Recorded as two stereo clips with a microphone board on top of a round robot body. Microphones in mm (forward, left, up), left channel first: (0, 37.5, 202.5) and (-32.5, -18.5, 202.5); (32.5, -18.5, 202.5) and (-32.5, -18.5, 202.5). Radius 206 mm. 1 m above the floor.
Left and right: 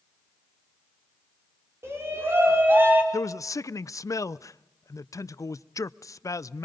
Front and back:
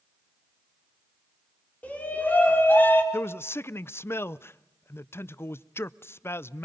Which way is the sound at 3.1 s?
45° left.